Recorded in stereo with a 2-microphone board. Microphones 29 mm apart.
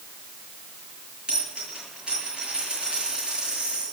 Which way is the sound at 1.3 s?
30° right (ahead or behind).